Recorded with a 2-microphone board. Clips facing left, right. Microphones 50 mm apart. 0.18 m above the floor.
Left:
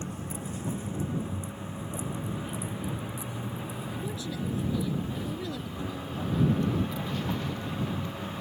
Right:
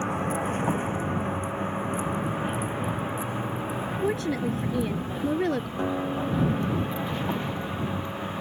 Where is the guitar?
55° right (ahead or behind).